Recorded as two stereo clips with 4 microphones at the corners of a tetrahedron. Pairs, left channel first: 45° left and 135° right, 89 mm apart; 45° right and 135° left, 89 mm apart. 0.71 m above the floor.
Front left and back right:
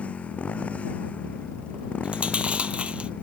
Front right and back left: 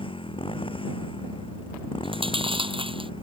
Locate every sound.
0.0 s a motorcycle: 30° right
2.0 s chewing: 145° left